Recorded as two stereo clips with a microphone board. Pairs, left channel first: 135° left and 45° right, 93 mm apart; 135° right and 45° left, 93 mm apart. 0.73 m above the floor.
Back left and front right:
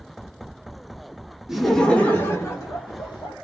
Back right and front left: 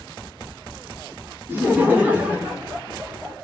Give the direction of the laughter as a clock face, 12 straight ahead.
11 o'clock.